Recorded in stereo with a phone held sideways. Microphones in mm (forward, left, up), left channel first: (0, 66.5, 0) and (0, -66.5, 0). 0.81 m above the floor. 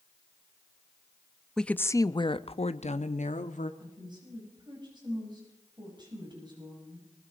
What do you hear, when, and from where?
1.6 s a woman speaking: 5° left (ahead or behind), 0.7 m; by 3.7 s 75° left (ahead or behind), 1.4 m
3.8 s a woman speaking: 35° right (ahead or behind), 6.5 m